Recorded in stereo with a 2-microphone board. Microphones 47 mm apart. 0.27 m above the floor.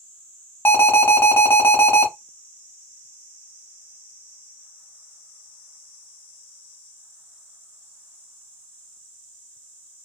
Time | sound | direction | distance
0.7 | an alarm | 55° left (ahead or behind) | 1.1 m